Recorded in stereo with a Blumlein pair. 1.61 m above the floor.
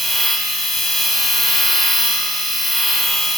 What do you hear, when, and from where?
0.0 s a machine running: 5° left, 1.3 m